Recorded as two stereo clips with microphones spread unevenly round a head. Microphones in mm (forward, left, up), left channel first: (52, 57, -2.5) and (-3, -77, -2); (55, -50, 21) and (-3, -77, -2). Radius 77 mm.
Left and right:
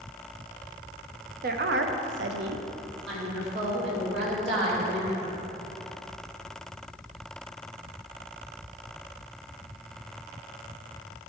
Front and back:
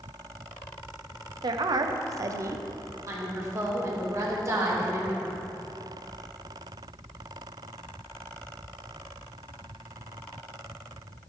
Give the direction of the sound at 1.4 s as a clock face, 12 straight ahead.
5 o'clock.